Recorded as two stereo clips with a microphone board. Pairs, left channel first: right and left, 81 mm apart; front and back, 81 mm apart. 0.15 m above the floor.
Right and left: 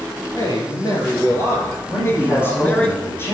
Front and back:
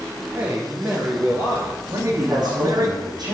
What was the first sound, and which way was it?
A man speaking, 120° right.